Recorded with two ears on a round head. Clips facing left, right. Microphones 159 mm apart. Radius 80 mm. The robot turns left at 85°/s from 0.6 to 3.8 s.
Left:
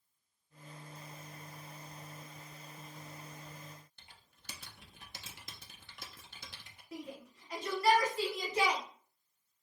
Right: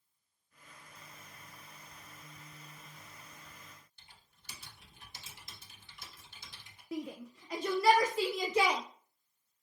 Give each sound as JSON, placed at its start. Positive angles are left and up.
{"t": 4.0, "sound": "typing on a keyboard", "side_deg": 45, "distance_m": 0.9}
{"t": 6.9, "sound": "a shout", "side_deg": -55, "distance_m": 0.6}